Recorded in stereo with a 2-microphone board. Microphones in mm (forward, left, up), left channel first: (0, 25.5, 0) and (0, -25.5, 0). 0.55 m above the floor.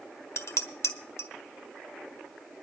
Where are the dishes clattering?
70° left (ahead or behind), 1.3 m.